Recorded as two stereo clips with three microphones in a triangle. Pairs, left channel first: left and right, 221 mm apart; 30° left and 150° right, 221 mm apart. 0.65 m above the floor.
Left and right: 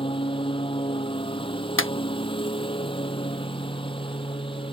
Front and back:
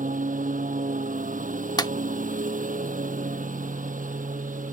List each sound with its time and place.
0.0 s a lawn mower: 155° left
1.8 s a clap: 100° left